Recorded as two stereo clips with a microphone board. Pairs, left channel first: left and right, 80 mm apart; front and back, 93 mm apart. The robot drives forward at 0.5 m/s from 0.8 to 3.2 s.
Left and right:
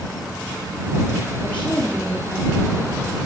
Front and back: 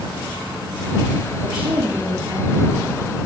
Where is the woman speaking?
160° left, 3 m; by 2.9 s 165° left, 4 m.